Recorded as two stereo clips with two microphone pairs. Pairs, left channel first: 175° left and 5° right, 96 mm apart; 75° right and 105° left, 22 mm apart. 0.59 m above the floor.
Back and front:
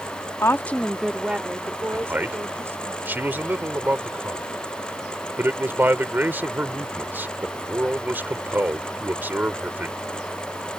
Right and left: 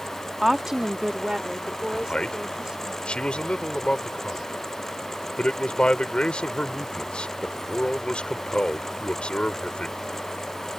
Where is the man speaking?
70° right.